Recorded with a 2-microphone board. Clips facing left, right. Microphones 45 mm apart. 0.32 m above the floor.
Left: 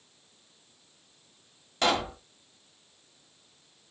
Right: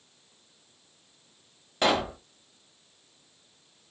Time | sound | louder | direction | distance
1.8 | a pop | right 2 dB | 10° right (ahead or behind) | 0.8 m